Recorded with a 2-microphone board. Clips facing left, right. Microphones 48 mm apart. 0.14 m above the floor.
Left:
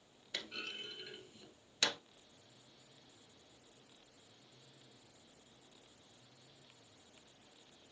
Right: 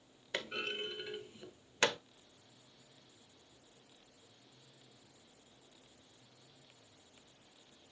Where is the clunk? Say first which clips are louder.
Right 6 dB; 35° right (ahead or behind), 1.0 m.